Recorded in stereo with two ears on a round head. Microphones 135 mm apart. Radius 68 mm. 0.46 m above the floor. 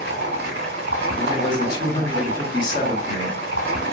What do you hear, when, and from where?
0.0 s running water: 85° right, 1.3 m
1.2 s a man speaking: 30° left (ahead or behind), 1.0 m